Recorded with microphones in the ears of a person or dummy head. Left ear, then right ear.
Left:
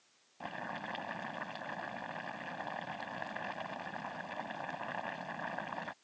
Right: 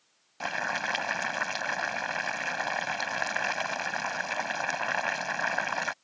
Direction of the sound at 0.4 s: 55° right (ahead or behind).